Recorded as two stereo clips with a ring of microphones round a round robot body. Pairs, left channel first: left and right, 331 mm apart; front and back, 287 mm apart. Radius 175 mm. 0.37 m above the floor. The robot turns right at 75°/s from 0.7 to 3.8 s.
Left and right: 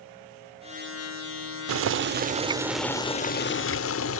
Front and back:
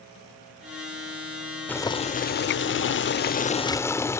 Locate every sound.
1.7 s boiling: 80° right; by 4.2 s 75° left